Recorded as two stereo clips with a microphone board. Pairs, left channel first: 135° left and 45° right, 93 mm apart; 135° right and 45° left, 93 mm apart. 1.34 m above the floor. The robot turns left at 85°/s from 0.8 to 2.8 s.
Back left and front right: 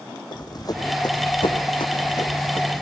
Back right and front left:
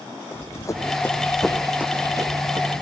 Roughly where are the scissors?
I don't hear scissors.